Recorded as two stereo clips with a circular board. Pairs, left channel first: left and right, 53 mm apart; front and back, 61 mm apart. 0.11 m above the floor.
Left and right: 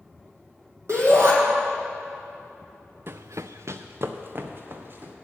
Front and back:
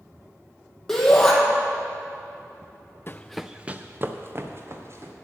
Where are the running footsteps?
50° right, 0.5 m; by 5.1 s 140° right, 2.5 m.